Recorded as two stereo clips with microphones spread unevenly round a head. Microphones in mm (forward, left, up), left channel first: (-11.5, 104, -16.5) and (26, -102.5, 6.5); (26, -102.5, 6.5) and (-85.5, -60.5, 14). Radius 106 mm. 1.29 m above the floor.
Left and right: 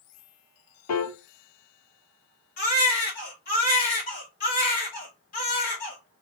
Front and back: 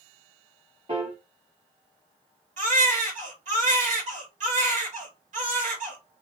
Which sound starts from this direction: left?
A piano, at 0.9 s.